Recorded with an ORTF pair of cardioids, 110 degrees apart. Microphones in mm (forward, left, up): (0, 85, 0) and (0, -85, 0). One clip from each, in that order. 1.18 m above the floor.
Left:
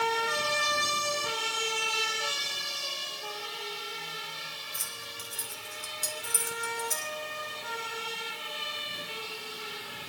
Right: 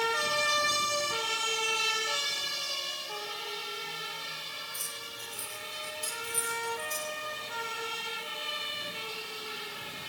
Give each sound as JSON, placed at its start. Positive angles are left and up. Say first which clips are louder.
{"t": 4.7, "sound": "keys jangling", "louder": "left 1 dB", "azimuth_deg": 40, "distance_m": 4.0}